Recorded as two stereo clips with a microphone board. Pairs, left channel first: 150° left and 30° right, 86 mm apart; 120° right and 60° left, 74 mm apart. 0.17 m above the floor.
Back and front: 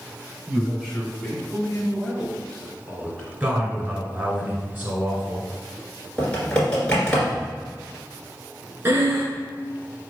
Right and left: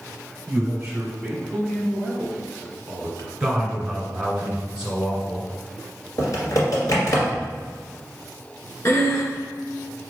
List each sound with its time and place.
0.5 s a man speaking: 55° left, 1.5 m; by 3.3 s 135° right, 2 m
3.4 s a man speaking: 5° right, 1.6 m
6.2 s typing on a keyboard: 130° right, 1.9 m
8.8 s breathing: 85° right, 1.1 m